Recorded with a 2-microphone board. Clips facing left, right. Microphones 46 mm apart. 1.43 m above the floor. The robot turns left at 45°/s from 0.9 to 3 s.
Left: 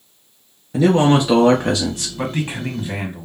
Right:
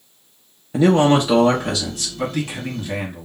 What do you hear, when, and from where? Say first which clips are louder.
0.7 s a man speaking: even; 170° right, 0.6 m; by 2.1 s 140° left, 0.6 m
2.2 s a man speaking: even; 40° left, 1.3 m; by 3.3 s 5° left, 1.3 m